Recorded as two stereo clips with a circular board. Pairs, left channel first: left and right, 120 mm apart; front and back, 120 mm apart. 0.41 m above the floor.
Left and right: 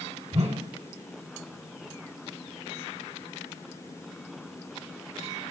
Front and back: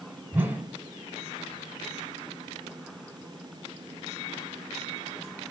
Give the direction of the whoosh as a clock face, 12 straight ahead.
4 o'clock.